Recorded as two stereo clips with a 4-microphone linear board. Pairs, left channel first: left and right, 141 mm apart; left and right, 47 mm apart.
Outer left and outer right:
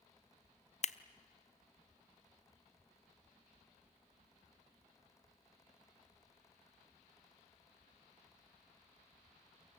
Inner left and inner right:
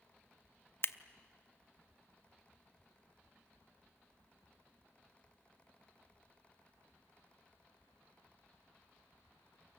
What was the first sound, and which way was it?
Scissors, 50° left (ahead or behind).